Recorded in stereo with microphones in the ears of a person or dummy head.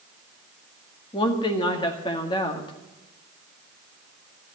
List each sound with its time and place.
1.1 s a woman speaking: 20° left (ahead or behind), 1.9 m